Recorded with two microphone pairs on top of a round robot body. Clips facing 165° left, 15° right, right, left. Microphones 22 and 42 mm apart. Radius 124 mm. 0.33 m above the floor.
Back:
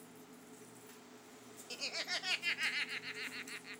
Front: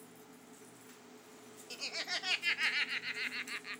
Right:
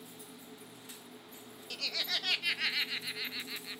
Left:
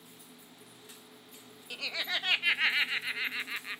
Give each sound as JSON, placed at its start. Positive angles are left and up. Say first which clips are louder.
{"t": 1.7, "sound": "laughter", "louder": "front 1 dB, left 2 dB", "azimuth_deg": 65}